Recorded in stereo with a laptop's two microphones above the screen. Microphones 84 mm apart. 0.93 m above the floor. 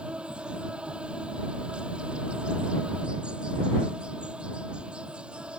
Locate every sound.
0.0 s an insect: 15° right (ahead or behind)